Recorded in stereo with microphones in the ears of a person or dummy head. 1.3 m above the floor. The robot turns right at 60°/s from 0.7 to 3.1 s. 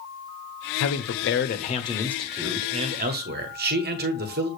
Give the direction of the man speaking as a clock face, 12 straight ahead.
9 o'clock.